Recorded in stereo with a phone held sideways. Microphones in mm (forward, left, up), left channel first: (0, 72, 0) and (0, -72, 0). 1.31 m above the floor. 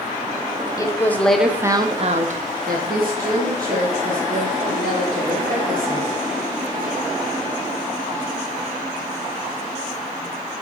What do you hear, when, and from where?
0.8 s a woman speaking: 25° left (ahead or behind), 0.7 m; by 6.2 s 75° right (ahead or behind), 2.5 m